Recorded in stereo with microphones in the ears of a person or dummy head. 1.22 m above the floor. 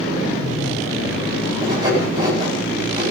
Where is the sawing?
25° right (ahead or behind), 9 m.